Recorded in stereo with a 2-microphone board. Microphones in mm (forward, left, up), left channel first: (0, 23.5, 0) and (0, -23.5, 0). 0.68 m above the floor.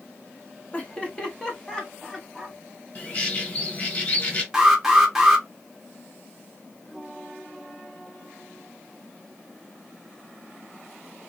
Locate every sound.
0.7 s laughter: 25° left (ahead or behind), 0.9 m; by 2.6 s 5° left (ahead or behind), 1.4 m
3.0 s a bird: 40° left (ahead or behind), 0.9 m
4.5 s an alarm: 10° right (ahead or behind), 0.8 m